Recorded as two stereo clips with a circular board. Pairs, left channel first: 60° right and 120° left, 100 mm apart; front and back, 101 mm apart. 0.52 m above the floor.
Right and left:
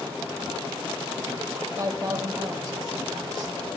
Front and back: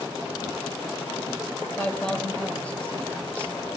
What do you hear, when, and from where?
1.8 s a man speaking: 75° left, 3 m